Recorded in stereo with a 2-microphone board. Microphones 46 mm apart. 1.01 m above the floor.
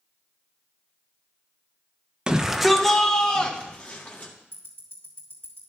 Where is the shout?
25° right (ahead or behind), 0.9 m; by 4.3 s 35° left (ahead or behind), 2 m.